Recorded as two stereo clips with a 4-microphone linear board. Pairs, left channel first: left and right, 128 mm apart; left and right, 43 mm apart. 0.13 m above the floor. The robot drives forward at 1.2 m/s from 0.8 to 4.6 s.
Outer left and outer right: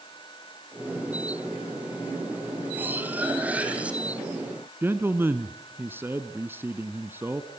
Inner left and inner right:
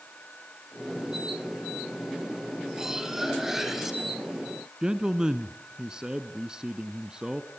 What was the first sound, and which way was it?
Cutlery clinking, 15° right (ahead or behind).